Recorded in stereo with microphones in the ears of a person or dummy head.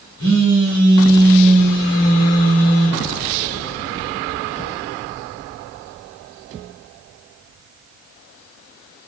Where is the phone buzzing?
20° left (ahead or behind), 5 m.